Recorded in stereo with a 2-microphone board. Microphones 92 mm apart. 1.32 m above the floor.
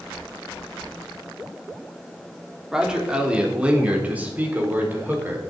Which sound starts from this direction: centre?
A man speaking, at 2.7 s.